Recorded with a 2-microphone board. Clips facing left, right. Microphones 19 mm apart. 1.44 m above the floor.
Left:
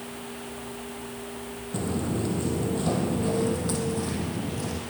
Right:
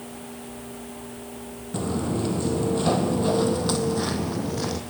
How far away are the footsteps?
About 2.5 m.